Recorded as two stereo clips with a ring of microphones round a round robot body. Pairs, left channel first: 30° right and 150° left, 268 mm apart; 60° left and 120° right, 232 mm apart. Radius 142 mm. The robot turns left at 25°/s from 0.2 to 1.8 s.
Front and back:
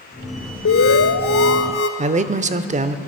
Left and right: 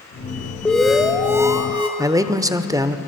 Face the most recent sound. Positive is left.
turn(degrees=180)